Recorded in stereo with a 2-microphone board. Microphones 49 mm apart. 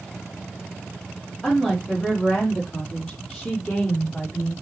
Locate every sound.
1.4 s a woman speaking: 5° left (ahead or behind), 5.5 m; by 4.5 s 20° left (ahead or behind), 5.5 m